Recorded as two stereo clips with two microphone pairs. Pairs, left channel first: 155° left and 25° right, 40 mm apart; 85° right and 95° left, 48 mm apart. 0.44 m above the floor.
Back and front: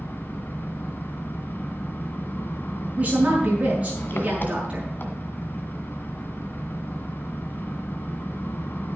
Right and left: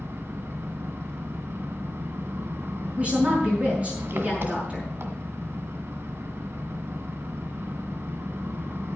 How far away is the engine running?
About 1.7 m.